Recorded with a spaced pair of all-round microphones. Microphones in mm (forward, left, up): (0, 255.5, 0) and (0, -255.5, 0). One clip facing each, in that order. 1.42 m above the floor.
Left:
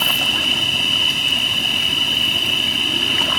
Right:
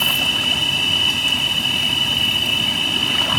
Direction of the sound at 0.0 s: 70° right (ahead or behind).